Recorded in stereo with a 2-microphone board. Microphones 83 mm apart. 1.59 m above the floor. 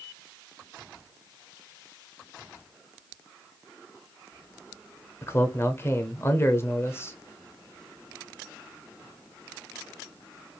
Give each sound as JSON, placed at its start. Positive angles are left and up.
{"t": 5.2, "sound": "a man speaking", "side_deg": 30, "distance_m": 0.6}